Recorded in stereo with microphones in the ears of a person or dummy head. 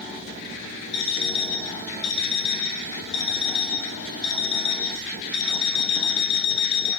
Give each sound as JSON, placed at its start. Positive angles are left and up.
{"t": 0.9, "sound": "an alarm clock", "side_deg": 70, "distance_m": 3.0}